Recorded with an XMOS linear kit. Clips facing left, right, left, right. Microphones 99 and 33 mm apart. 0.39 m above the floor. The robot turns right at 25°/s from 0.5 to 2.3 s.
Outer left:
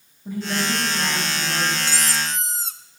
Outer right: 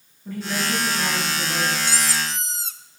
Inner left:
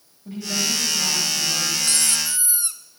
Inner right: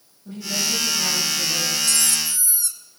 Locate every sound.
0.2 s a woman speaking: 15° left (ahead or behind), 8 m; by 1.7 s 15° right (ahead or behind), 8 m
1.8 s a squeak: 50° left (ahead or behind), 0.6 m; by 2.8 s 40° left (ahead or behind), 0.6 m